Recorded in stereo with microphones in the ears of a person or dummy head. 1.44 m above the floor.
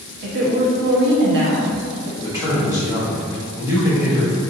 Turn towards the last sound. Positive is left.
turn(degrees=-20)  # may be behind; listen again after turning